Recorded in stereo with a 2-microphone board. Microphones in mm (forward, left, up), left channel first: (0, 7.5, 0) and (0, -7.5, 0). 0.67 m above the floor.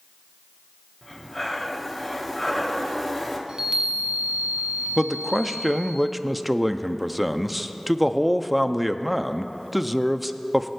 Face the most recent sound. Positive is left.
turn(degrees=-5)  # may be behind; listen again after turning